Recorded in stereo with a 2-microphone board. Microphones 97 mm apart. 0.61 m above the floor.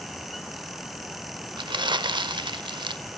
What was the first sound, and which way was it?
Crumpling, 50° right (ahead or behind).